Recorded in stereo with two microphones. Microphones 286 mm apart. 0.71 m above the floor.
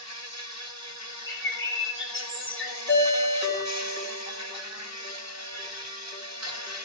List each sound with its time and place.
0.0 s an insect: 65° right (ahead or behind), 1.2 m
1.3 s a bird: 45° left (ahead or behind), 1.9 m
2.9 s a ringtone: 40° left (ahead or behind), 3 m